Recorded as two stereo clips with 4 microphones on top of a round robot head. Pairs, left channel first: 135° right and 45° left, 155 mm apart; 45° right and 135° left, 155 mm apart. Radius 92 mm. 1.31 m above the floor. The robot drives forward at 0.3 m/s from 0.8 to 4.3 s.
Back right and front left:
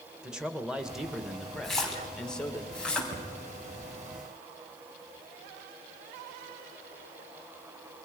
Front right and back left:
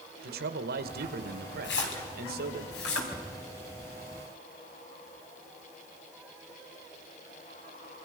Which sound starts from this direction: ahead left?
A cupboard door, at 3.1 s.